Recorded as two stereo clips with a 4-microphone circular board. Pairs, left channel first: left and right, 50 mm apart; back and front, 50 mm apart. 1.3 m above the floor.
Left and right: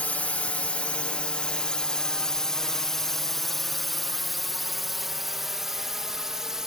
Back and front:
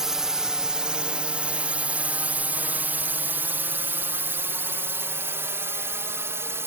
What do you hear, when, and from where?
0.0 s a drone: 70° left; by 6.7 s 10° right